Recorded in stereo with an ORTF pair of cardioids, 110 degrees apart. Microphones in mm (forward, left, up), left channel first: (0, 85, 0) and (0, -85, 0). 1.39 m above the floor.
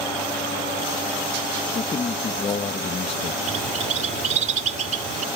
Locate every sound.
1.8 s a man speaking: 35° left
3.5 s a bird: 45° right